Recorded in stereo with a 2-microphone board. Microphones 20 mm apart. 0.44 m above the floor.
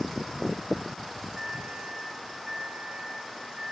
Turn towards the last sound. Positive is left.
turn(degrees=-30)  # may be behind; listen again after turning